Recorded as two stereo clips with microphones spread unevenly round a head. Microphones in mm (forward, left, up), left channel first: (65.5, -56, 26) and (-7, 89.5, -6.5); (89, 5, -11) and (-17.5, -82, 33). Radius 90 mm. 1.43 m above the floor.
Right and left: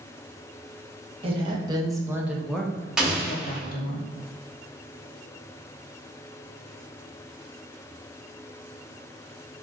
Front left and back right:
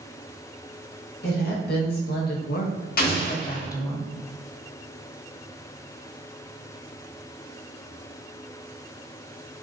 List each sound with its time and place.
1.2 s a woman speaking: 60° left, 1.5 m; by 4.0 s 35° right, 1.1 m
3.0 s an explosion: 25° left, 1.3 m